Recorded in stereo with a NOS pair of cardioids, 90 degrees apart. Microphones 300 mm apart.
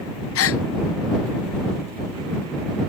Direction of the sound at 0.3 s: 50° left.